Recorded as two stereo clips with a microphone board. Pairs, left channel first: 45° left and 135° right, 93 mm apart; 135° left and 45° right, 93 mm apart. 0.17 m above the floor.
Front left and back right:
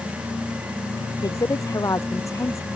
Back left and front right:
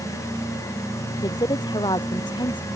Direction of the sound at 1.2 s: 95° left.